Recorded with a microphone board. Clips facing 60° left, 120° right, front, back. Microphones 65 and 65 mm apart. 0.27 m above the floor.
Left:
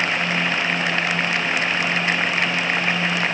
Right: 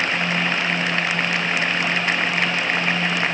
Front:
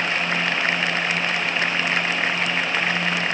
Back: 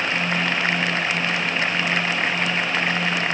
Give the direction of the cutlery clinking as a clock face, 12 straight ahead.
I don't hear cutlery clinking.